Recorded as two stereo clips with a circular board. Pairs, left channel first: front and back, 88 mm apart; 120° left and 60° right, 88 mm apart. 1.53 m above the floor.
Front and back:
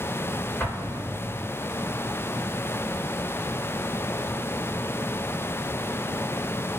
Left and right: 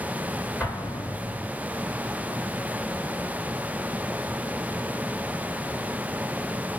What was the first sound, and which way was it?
An explosion, 80° left.